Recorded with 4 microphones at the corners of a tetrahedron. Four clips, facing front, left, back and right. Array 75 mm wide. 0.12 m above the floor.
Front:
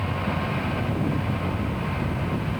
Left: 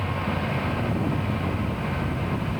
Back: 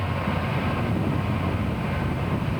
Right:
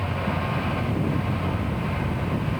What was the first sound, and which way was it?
Only background noise.